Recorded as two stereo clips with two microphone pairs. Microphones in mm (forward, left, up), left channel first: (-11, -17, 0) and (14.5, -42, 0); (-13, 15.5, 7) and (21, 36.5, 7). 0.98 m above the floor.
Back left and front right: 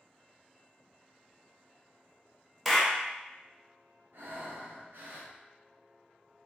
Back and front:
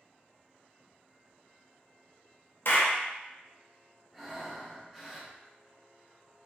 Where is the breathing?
55° right, 0.5 m.